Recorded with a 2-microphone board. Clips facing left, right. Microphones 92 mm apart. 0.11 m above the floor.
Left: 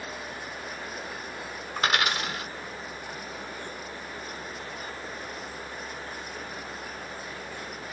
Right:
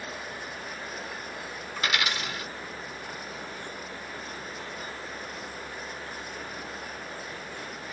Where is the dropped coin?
50° left (ahead or behind), 0.6 m.